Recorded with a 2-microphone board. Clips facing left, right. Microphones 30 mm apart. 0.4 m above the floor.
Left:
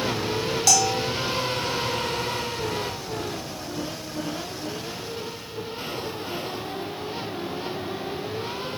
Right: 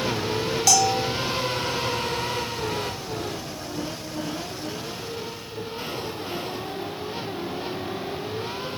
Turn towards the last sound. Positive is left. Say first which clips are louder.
# right 2 dB
turn(degrees=-5)  # may be behind; listen again after turning